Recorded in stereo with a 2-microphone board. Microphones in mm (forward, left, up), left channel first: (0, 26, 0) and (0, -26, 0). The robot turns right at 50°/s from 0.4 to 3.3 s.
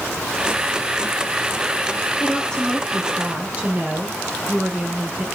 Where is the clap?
I don't hear a clap.